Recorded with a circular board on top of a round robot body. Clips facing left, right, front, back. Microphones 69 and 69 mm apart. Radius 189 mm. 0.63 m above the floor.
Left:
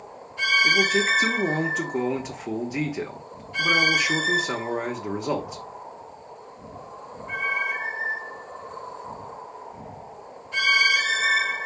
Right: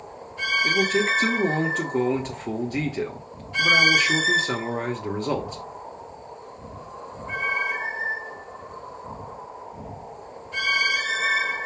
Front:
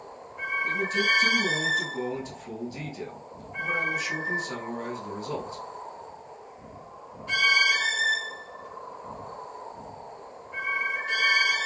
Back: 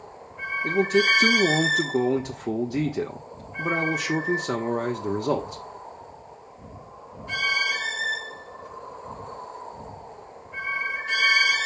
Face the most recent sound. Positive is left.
turn(degrees=175)